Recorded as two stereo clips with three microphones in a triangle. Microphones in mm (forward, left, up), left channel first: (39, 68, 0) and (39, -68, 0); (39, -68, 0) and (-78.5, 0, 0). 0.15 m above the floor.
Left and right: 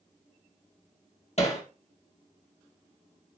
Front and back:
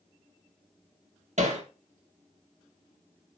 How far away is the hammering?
About 2.5 m.